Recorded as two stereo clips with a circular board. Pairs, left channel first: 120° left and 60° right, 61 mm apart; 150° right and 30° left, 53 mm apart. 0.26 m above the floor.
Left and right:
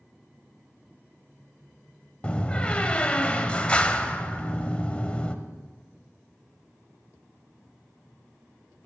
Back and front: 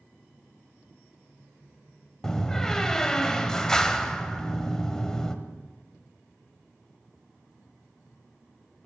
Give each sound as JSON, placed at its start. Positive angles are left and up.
{"t": 2.2, "sound": "a door slam", "azimuth_deg": 150, "distance_m": 0.6}